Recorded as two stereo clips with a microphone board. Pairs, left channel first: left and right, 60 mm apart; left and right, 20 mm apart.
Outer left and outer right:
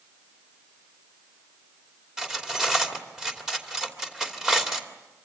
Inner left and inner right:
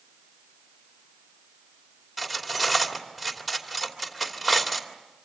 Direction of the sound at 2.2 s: 10° right (ahead or behind).